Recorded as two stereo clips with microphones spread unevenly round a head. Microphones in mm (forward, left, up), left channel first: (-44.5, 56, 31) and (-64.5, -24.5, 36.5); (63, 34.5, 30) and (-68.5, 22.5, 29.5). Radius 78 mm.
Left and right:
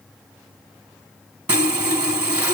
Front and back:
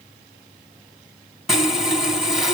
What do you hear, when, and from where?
1.5 s sawing: 85° right, 1.4 m